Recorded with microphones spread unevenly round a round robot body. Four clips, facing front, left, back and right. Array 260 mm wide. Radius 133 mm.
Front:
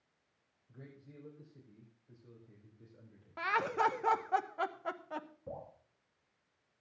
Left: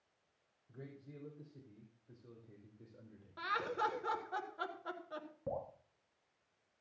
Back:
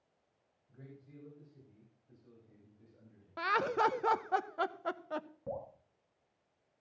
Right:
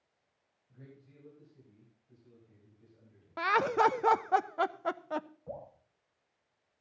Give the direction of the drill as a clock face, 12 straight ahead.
No drill in this recording.